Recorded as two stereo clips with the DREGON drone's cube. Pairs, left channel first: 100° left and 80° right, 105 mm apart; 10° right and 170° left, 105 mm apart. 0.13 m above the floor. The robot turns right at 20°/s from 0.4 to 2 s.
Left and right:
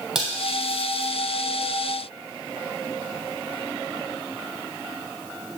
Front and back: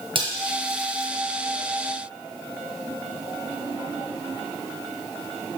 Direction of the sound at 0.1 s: 160° right.